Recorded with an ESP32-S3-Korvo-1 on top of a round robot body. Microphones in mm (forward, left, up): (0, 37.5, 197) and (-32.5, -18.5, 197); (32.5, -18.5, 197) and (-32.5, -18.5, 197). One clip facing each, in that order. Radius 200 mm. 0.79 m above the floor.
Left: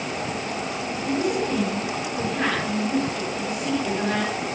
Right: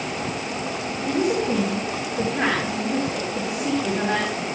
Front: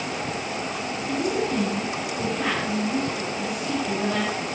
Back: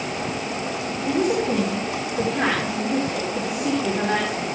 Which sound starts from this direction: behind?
A woman speaking, at 1.1 s.